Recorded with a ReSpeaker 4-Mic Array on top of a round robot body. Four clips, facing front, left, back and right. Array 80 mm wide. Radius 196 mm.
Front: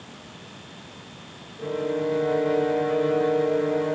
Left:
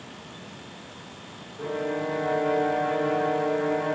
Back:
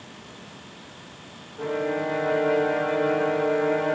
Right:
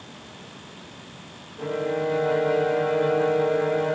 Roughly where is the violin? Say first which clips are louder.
Right 3 dB, even; behind.